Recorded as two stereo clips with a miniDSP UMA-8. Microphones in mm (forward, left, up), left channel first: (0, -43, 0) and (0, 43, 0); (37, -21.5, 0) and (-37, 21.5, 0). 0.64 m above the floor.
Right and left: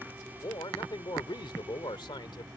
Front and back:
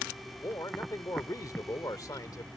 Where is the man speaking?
70° right.